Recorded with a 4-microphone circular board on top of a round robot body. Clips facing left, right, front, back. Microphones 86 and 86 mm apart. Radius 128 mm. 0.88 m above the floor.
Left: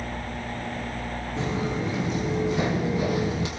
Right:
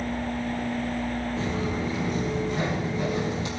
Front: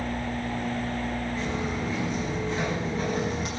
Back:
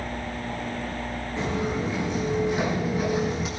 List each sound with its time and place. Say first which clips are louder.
1.4 s footsteps: even, back 3 dB; 115° left, 4.5 m; by 3.5 s 90° left, 2 m